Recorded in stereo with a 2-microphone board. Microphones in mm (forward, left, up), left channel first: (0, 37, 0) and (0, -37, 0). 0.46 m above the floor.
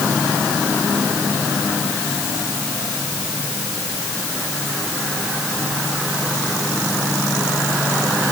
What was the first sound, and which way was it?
Only background noise.